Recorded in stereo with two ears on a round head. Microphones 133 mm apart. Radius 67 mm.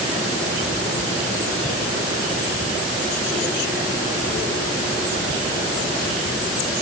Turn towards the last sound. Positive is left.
No sound to turn to.